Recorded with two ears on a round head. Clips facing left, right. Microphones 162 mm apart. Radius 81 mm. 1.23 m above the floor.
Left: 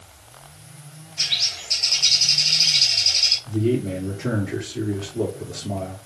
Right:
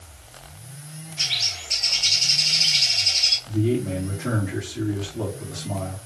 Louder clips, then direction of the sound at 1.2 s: Right 1 dB; 25° left (ahead or behind).